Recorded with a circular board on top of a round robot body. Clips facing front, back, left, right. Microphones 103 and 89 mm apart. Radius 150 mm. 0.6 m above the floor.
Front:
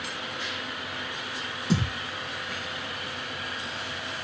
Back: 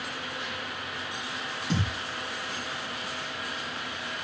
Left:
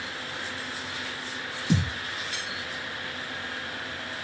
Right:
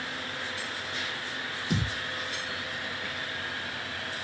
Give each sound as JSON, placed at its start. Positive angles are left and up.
{"t": 1.7, "sound": "a thud", "azimuth_deg": 80, "distance_m": 3.0}